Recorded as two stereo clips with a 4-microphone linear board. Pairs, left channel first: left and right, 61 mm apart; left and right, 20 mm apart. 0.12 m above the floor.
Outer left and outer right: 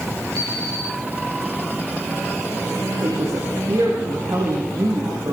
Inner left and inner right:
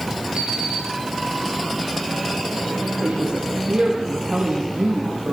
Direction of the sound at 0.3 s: 80° right.